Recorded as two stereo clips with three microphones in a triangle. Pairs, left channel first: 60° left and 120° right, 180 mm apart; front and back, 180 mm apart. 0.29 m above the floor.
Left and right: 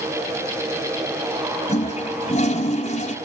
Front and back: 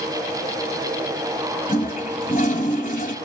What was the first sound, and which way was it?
A toilet flushing, 25° left.